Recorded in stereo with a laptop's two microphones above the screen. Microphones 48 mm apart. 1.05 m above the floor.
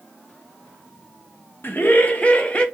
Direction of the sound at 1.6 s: 45° left (ahead or behind).